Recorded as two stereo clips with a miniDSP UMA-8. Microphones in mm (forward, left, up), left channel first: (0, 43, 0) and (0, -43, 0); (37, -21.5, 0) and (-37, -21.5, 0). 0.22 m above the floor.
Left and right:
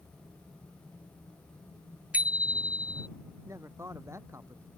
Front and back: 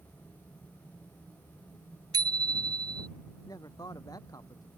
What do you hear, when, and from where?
2.1 s a bicycle bell: 165° right
3.5 s a man speaking: 35° right